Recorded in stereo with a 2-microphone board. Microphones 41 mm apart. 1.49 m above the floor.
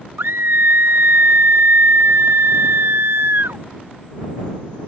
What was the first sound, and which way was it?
A scream, 75° right (ahead or behind).